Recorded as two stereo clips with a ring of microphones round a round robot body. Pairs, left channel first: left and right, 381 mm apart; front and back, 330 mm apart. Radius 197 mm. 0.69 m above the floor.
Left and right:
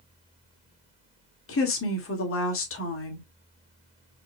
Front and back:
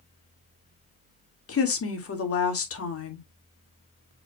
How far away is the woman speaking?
About 1.7 m.